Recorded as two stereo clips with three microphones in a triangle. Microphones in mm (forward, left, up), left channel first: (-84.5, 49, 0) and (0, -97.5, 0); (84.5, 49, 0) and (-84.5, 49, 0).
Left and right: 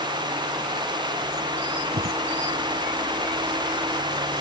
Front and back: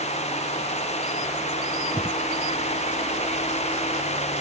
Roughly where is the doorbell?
I don't hear a doorbell.